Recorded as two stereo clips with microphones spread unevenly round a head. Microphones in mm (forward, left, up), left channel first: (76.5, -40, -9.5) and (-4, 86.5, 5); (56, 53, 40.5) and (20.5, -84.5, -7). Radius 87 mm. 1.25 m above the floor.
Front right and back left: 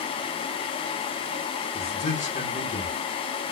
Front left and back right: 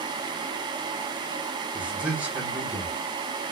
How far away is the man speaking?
About 0.8 m.